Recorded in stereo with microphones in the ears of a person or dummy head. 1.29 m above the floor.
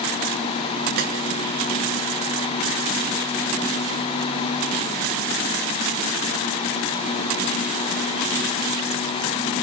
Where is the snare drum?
55° right (ahead or behind), 3 m.